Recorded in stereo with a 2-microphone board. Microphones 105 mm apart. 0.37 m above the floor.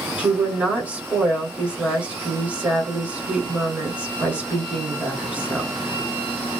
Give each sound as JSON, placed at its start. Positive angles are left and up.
{"t": 0.2, "sound": "a woman speaking", "side_deg": -10, "distance_m": 1.6}